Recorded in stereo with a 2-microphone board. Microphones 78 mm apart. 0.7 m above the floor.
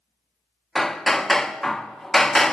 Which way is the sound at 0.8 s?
5° left (ahead or behind).